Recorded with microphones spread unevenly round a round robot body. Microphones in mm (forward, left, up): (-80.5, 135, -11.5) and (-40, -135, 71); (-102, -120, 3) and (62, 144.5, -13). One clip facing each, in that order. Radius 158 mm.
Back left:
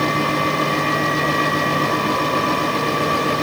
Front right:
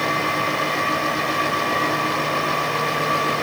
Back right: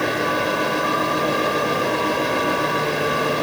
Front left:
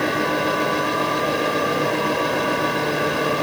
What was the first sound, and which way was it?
Only background noise.